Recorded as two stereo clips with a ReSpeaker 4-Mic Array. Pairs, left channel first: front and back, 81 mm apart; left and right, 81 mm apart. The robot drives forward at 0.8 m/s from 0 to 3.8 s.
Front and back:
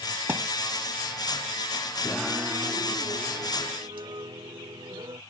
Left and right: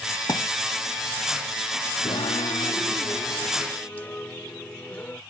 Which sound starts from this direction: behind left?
A thud, at 0.3 s.